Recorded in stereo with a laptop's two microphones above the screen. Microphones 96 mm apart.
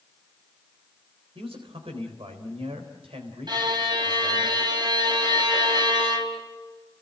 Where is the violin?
50° right (ahead or behind), 3 m.